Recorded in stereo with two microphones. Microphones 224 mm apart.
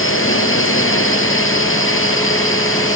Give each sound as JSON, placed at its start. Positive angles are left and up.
{"t": 0.0, "sound": "a drone", "side_deg": 65}